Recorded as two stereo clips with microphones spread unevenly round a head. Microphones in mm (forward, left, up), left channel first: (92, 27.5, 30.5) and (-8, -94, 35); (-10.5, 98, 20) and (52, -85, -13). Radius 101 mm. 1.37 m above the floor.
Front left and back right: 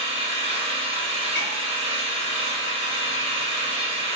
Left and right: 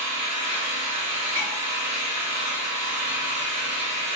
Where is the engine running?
75° right, 1.2 m.